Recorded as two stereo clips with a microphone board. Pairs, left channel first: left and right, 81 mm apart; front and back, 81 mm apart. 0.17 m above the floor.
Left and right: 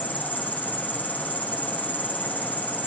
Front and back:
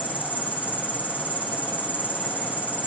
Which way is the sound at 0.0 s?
45° left.